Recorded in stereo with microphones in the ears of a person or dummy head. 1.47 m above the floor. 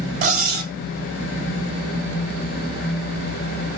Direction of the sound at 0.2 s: 55° right (ahead or behind).